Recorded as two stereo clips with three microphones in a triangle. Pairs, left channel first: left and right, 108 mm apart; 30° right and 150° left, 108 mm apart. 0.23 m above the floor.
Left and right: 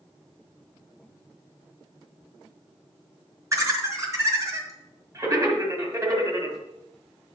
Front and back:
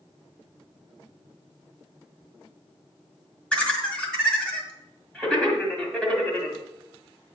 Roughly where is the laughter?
Right.